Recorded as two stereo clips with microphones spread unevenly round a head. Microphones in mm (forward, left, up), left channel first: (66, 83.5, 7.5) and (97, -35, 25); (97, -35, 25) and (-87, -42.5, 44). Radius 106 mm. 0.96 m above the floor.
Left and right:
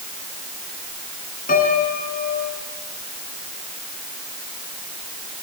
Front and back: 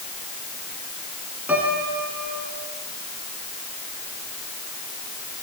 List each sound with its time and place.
1.5 s a piano: 100° left, 3.5 m